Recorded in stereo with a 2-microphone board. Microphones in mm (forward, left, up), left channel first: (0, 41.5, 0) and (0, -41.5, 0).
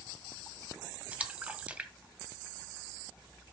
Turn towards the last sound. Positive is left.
turn(degrees=-15)  # may be behind; listen again after turning